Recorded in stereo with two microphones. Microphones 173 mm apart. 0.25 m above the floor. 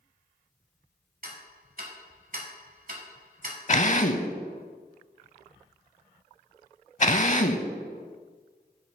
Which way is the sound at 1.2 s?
55° right (ahead or behind).